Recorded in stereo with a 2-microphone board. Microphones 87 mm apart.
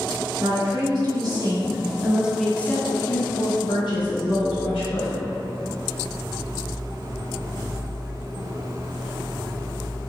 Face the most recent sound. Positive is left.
turn(degrees=75)  # may be behind; listen again after turning